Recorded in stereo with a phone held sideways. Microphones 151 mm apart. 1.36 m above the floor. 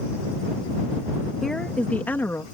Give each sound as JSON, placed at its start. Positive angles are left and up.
{"t": 1.4, "sound": "a woman speaking", "side_deg": 5}